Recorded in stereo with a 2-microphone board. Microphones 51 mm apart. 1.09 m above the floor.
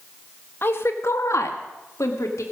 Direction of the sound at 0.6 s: 45° left (ahead or behind).